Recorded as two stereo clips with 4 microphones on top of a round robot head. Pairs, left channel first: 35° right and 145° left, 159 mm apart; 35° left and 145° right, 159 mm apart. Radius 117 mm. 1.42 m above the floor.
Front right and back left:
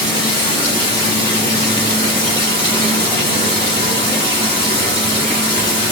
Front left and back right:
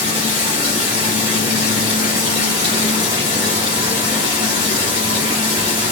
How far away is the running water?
About 1.4 m.